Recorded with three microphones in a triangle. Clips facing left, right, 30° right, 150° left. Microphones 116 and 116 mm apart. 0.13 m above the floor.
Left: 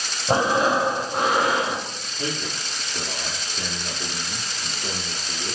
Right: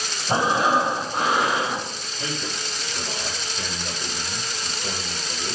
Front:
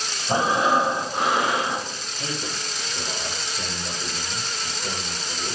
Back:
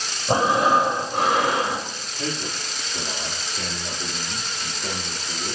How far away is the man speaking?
About 3.5 m.